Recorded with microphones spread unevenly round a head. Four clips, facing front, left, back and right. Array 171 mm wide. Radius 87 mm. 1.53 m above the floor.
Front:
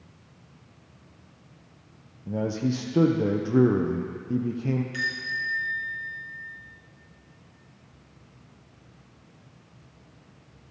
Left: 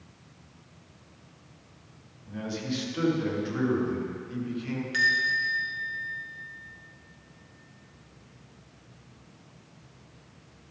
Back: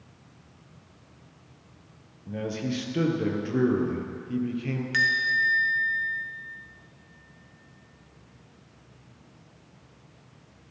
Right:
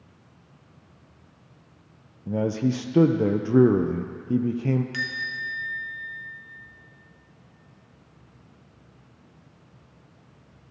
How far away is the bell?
About 1.6 m.